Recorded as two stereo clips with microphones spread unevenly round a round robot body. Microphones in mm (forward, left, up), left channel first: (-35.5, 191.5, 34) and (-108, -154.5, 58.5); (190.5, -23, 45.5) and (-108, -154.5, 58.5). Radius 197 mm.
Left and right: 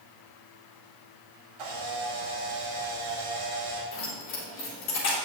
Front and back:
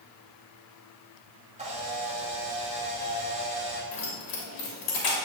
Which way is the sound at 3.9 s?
20° left.